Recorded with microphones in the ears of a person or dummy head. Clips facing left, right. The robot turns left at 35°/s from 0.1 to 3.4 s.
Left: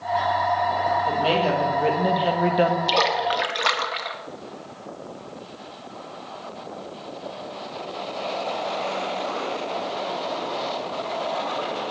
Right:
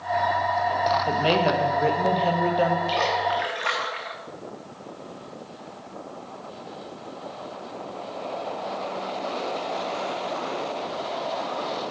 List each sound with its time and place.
1.1 s a woman speaking: 145° right, 0.9 m; by 2.8 s 155° left, 0.9 m
2.9 s a splash: 50° left (ahead or behind), 0.9 m; by 4.2 s 55° left (ahead or behind), 0.9 m